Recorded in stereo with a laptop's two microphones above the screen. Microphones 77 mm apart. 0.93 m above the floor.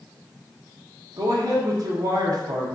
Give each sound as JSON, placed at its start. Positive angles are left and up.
{"t": 1.2, "sound": "a man speaking", "side_deg": -55, "distance_m": 0.8}